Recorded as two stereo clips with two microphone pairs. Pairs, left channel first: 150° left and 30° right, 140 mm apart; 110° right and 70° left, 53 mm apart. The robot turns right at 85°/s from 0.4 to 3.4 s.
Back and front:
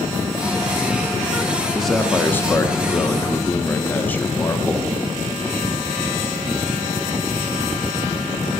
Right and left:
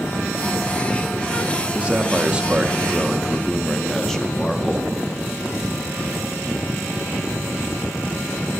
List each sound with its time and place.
1.8 s a man speaking: 55° left, 0.6 m; by 4.9 s 165° right, 0.6 m